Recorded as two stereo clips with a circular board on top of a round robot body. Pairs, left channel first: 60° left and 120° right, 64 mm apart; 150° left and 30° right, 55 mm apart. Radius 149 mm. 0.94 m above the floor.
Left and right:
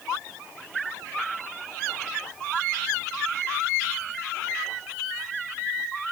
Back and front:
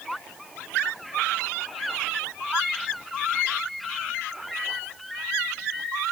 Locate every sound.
Only background noise.